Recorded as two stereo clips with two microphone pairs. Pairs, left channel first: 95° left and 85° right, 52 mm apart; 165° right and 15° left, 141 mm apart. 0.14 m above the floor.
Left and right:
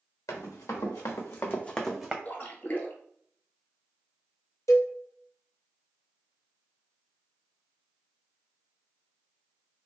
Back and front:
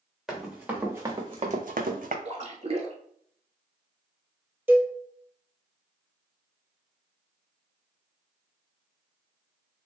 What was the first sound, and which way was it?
Running footsteps, 100° left.